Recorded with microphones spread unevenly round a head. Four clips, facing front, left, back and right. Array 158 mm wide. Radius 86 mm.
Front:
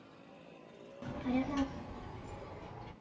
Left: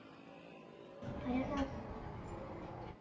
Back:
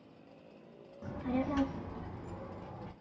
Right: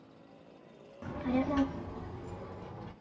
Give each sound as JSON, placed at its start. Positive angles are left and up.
{"t": 1.0, "sound": "a child speaking", "azimuth_deg": -60, "distance_m": 0.8}